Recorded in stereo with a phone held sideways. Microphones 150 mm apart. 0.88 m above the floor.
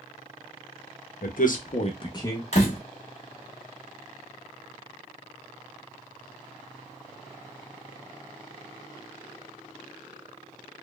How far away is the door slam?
About 1.2 m.